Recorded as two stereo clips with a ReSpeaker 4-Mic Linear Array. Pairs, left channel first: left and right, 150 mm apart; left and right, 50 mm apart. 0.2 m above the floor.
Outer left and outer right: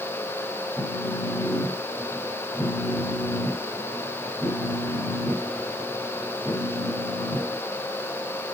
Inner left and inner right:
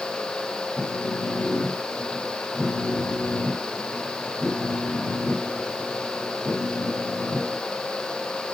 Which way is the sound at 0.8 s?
15° left (ahead or behind).